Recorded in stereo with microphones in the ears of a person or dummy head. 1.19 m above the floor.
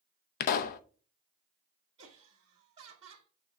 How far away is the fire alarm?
I don't hear a fire alarm.